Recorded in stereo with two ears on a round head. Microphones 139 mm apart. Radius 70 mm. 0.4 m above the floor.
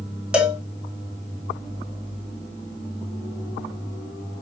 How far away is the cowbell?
About 1.3 m.